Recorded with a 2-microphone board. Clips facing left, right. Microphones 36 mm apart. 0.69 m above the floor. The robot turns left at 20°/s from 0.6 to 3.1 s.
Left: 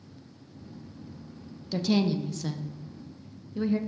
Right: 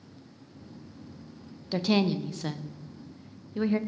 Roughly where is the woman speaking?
Right.